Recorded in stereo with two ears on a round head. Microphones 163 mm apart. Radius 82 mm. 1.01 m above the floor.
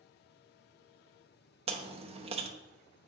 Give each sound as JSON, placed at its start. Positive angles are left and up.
{"t": 1.7, "sound": "chewing", "side_deg": -35, "distance_m": 0.8}